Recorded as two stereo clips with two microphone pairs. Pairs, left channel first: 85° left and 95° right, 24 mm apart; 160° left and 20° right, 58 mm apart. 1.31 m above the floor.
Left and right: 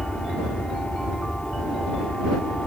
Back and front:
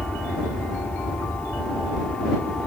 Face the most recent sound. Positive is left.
turn(degrees=90)